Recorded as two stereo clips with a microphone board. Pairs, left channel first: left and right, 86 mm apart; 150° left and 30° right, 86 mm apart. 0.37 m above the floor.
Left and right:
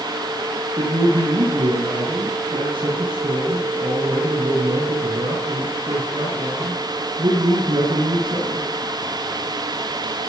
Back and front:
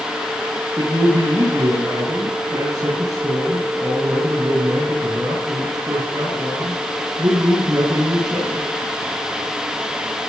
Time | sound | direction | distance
0.8 | a man speaking | 75° right | 6 m